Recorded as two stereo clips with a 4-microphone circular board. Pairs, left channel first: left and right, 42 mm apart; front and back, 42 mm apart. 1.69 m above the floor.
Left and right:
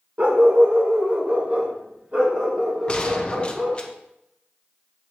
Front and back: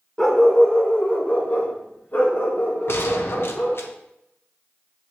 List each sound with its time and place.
0.2 s a dog barking: 75° right, 1.5 m; by 3.8 s 20° right, 4 m
2.9 s a gunshot: 25° left, 0.9 m